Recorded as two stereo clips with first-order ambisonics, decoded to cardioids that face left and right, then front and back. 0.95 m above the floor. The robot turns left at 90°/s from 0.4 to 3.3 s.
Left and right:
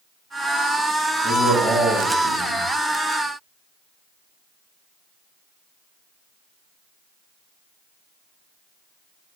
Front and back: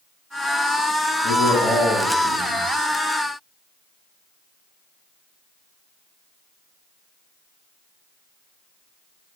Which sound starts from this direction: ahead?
A man speaking, at 1.2 s.